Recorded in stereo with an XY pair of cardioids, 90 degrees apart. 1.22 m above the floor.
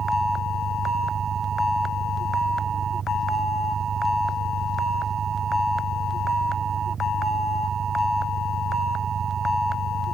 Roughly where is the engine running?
Ahead right.